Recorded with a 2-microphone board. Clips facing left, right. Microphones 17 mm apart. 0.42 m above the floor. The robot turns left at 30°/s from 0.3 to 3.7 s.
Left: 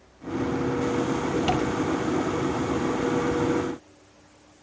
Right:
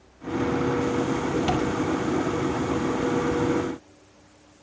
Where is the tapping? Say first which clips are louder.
Left 1 dB; 50° left (ahead or behind), 5 m; by 1.7 s 55° left (ahead or behind), 5 m.